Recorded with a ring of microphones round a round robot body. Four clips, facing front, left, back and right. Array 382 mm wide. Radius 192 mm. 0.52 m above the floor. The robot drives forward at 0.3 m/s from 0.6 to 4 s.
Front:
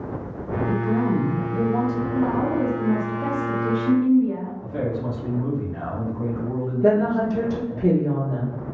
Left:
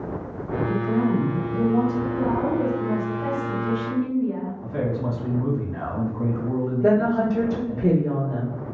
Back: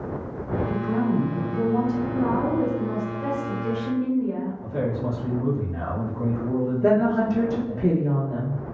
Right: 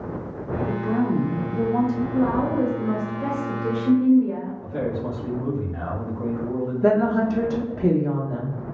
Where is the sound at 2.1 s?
85° right, 1.6 m; by 4.5 s 105° right, 1.7 m.